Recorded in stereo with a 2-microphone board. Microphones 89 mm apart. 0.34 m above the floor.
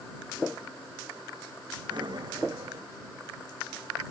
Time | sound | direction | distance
1.9 | breathing | 55° right (ahead or behind) | ?